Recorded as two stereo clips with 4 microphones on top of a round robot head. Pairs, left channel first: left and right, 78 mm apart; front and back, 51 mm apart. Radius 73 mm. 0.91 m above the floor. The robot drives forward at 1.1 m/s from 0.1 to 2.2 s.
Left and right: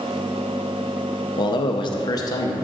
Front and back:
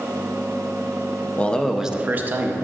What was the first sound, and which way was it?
A man speaking, 60° left.